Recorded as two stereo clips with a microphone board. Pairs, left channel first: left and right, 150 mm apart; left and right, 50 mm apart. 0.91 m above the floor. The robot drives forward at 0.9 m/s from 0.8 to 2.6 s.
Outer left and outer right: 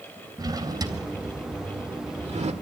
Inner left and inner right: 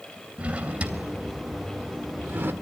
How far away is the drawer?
About 3 m.